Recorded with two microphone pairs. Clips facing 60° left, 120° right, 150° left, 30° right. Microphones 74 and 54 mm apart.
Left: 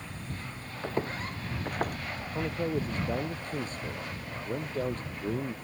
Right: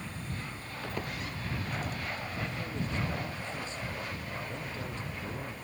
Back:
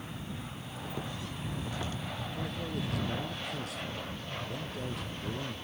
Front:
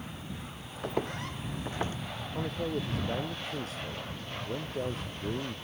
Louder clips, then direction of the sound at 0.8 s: Left 6 dB, front 7 dB; straight ahead.